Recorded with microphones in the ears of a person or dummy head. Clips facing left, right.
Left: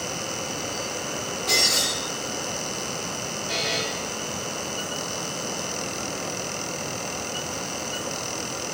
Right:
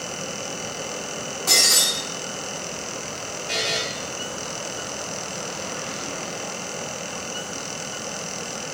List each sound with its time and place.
1.5 s breaking glass: 45° right (ahead or behind), 4 m
3.5 s a buzzer: 30° right (ahead or behind), 2 m